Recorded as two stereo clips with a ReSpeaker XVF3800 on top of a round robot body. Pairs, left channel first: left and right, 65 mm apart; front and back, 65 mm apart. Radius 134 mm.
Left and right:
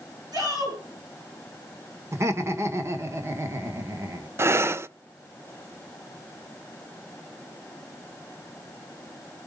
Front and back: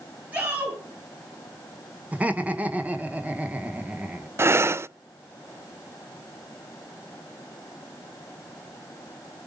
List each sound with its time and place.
0.3 s a shout: 115° right, 10 m
2.1 s laughter: 120° right, 1.7 m
4.4 s breathing: 135° right, 0.5 m